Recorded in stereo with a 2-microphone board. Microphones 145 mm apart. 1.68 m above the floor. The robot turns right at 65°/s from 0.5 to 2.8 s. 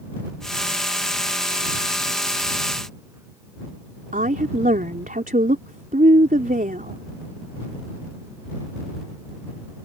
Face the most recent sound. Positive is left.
turn(degrees=-70)  # may be behind; listen again after turning